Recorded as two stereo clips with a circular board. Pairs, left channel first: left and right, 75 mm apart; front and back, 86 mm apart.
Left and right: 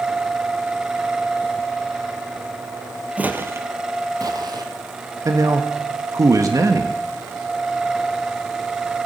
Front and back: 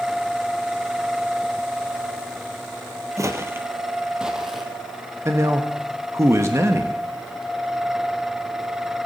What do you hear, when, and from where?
3.2 s footsteps: 155° right, 1.3 m; by 4.7 s 90° right, 2.0 m
5.2 s a man speaking: 125° right, 1.4 m